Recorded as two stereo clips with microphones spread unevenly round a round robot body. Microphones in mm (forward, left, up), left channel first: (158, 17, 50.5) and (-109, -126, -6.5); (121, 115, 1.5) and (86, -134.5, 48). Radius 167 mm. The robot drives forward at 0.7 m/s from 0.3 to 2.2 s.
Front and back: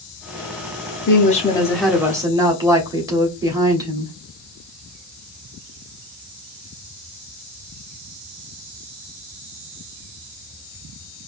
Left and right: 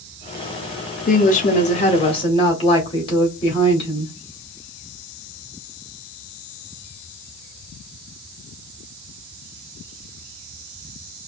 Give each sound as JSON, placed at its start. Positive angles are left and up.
{"t": 1.1, "sound": "a woman speaking", "azimuth_deg": 80, "distance_m": 0.9}